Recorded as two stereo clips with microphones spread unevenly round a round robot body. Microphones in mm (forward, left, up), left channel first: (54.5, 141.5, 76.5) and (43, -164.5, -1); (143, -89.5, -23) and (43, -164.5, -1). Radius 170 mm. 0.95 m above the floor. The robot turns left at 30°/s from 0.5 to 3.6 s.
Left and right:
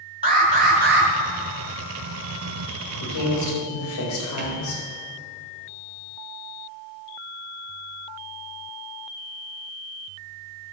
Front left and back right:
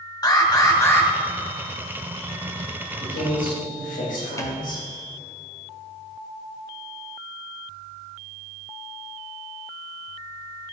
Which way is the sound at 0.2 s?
20° right.